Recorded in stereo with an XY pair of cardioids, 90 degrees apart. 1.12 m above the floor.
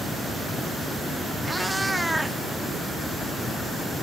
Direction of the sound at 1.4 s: 15° right.